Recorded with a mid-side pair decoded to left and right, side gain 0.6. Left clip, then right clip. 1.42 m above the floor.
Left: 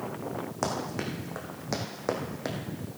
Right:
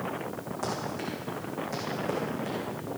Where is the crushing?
I don't hear crushing.